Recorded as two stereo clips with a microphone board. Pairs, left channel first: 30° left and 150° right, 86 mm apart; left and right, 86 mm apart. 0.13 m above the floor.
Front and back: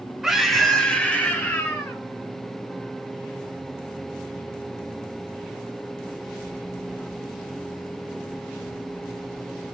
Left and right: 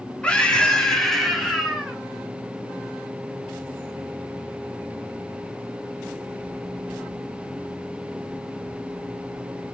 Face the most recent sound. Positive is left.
turn(degrees=-5)